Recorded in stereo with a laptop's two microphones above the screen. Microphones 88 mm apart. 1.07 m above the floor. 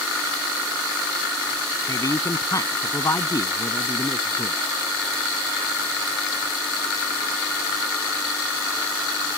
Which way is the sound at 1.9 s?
40° left (ahead or behind).